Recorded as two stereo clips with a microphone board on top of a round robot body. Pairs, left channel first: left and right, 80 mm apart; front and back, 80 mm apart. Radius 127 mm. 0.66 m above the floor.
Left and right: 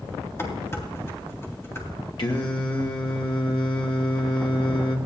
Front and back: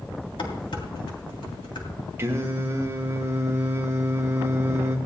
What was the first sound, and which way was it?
Dishes clattering, 25° left.